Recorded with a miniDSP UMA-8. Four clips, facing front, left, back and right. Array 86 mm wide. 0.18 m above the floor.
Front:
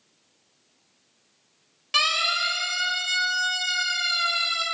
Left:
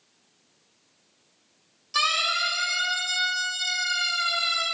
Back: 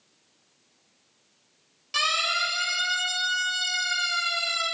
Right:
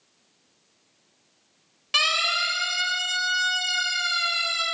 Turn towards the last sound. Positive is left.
turn(degrees=-45)